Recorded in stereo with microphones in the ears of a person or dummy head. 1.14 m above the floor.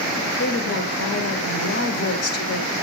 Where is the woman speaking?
55° left (ahead or behind), 1.9 m.